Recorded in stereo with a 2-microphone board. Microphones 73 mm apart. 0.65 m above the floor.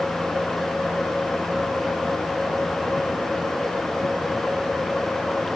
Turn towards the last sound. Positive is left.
No sound to turn to.